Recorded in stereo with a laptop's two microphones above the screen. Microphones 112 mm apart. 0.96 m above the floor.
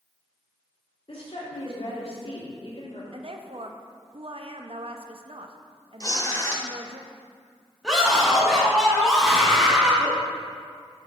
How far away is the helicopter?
I don't hear a helicopter.